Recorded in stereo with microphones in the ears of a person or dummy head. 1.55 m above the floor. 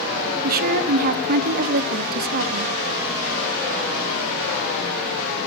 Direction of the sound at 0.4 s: 45° right (ahead or behind).